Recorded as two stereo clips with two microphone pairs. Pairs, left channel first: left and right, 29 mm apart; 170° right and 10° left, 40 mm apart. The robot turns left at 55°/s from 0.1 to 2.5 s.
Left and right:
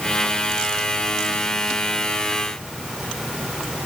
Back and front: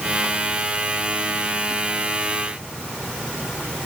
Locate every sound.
Only background noise.